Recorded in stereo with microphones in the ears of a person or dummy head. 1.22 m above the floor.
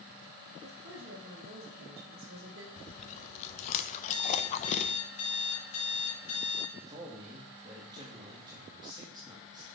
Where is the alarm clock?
45° left (ahead or behind), 4.5 m.